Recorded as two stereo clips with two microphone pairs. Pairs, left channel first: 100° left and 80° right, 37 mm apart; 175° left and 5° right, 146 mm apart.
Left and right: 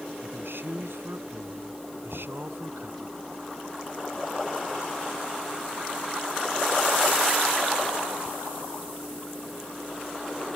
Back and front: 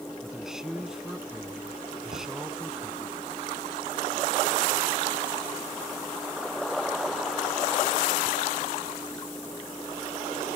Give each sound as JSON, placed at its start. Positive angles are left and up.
{"t": 0.2, "sound": "a man speaking", "azimuth_deg": -90}
{"t": 2.1, "sound": "knocking", "azimuth_deg": 15}